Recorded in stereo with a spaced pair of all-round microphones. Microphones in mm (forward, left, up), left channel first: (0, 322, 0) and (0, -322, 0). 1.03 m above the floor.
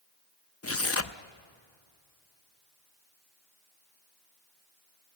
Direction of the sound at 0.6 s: 25° left (ahead or behind).